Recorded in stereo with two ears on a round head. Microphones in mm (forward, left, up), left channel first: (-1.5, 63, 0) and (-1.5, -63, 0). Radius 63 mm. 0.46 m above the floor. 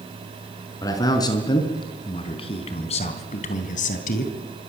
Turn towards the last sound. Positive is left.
turn(degrees=70)  # may be behind; listen again after turning